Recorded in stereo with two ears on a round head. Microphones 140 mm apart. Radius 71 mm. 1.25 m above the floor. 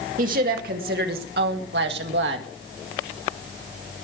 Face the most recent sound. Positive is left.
turn(degrees=-80)